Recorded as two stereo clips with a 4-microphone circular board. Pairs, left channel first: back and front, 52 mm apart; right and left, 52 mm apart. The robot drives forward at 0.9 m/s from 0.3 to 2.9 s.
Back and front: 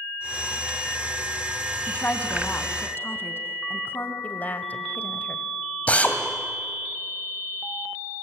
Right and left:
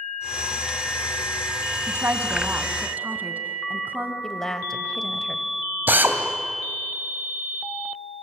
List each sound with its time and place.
1.9 s a woman speaking: 120° left, 2.0 m; by 4.1 s 140° left, 2.5 m
4.2 s a woman speaking: 165° right, 1.5 m
5.9 s a drill: 125° left, 2 m